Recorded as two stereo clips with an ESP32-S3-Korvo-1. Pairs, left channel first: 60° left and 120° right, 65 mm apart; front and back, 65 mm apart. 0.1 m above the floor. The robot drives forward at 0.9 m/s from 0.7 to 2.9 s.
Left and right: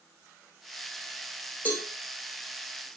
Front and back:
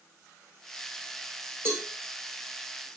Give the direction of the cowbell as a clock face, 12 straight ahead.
8 o'clock.